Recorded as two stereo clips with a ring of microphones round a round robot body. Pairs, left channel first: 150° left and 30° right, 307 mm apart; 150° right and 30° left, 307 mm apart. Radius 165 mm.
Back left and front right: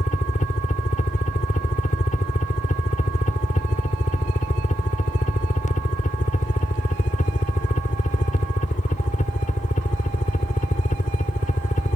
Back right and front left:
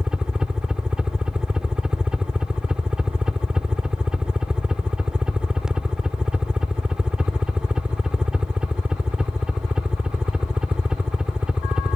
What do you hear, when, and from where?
0.0 s a helicopter: 115° left